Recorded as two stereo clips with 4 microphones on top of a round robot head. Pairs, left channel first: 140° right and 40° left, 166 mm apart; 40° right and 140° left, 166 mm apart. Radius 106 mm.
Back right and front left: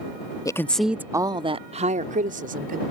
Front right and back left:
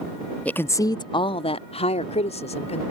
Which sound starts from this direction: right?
A woman speaking, at 0.5 s.